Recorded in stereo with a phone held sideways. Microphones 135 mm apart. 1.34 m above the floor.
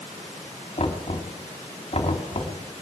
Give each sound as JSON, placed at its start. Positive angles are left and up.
{"t": 0.8, "sound": "knocking", "side_deg": 45, "distance_m": 3.0}